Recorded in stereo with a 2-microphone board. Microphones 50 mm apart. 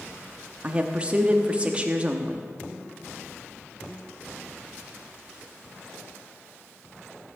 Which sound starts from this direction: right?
A woman speaking, at 0.6 s.